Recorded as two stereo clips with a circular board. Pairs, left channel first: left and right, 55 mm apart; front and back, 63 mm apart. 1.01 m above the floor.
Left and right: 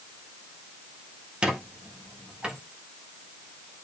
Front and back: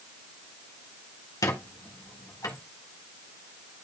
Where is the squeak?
20° right, 1.6 m.